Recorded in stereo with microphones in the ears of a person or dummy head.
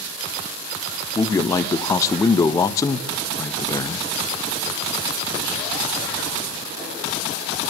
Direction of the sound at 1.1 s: 25° left (ahead or behind).